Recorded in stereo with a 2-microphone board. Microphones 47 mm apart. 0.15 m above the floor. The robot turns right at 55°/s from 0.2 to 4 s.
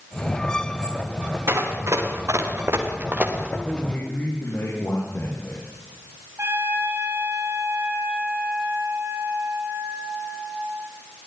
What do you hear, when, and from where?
1.5 s running footsteps: 60° right (ahead or behind), 6 m; by 3.5 s 15° right (ahead or behind), 4.5 m
3.6 s a man speaking: 30° left (ahead or behind), 8.5 m; by 5.6 s 45° left (ahead or behind), 8.5 m
6.4 s a trumpet: 55° right (ahead or behind), 3.5 m